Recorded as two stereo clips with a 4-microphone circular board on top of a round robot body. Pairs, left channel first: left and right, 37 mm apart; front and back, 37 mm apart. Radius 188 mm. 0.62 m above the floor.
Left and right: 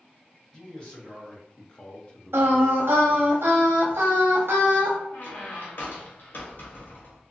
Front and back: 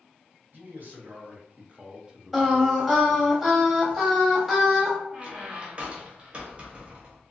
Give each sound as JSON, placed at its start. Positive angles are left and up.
{"t": 0.5, "sound": "a man speaking", "azimuth_deg": 155, "distance_m": 1.5}
{"t": 2.3, "sound": "singing", "azimuth_deg": -95, "distance_m": 0.8}
{"t": 5.1, "sound": "a squeak", "azimuth_deg": 125, "distance_m": 0.6}